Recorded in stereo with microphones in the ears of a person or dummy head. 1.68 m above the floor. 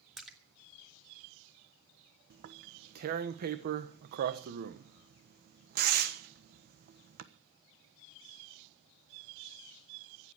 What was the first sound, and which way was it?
A splash, centre (ahead or behind).